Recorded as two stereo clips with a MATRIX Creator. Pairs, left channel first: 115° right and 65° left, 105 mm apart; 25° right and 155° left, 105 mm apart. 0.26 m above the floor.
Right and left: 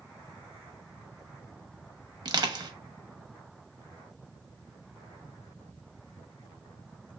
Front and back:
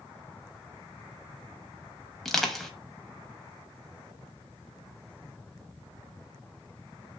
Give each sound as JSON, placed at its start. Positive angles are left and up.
{"t": 2.2, "sound": "crushing", "azimuth_deg": 65, "distance_m": 0.5}